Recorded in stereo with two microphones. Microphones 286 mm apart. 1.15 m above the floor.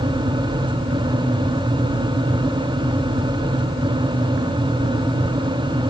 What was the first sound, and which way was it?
Only background noise.